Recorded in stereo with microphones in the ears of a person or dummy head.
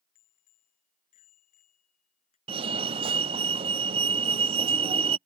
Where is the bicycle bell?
45° left (ahead or behind); by 2.4 s 40° left (ahead or behind).